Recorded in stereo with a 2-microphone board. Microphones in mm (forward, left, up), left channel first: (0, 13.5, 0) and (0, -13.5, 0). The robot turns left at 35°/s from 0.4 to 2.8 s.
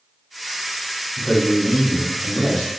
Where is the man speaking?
125° left, 1.2 m; by 2.7 s 70° left, 1.2 m.